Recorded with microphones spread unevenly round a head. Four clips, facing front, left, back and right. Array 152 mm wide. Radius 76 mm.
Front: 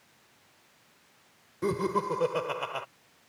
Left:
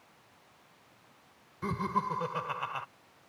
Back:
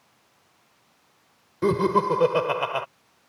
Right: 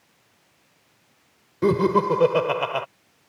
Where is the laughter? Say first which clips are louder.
Right 13 dB, back 8 dB; 115° right.